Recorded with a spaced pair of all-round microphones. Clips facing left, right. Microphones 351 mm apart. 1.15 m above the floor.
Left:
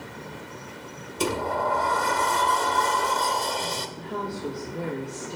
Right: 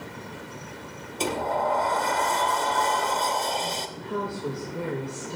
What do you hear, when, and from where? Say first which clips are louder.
1.2 s a sliding door: left 1 dB; 20° left (ahead or behind), 0.7 m
4.0 s a woman speaking: right 2 dB; 5° right (ahead or behind), 1.5 m